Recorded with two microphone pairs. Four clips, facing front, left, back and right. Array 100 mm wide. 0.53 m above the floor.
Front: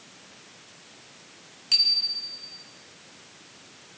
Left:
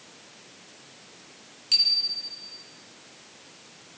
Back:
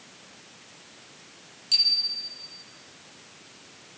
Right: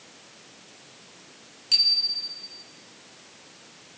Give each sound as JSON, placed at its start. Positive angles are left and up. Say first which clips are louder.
{"t": 1.7, "sound": "a bicycle bell", "louder": "right 1 dB, front 1 dB", "azimuth_deg": -15, "distance_m": 4.0}